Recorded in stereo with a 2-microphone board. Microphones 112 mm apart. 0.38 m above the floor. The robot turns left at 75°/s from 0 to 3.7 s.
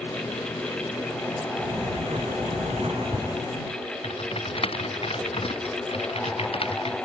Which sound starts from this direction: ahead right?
A sliding door, at 1.6 s.